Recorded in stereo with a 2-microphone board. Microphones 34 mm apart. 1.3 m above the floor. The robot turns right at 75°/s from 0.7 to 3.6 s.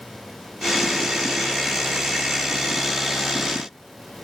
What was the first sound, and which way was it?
Only background noise.